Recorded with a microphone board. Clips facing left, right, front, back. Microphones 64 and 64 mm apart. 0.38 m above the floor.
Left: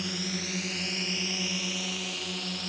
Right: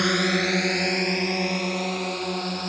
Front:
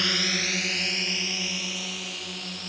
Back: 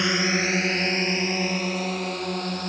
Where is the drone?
110° right; by 2.7 s 135° right.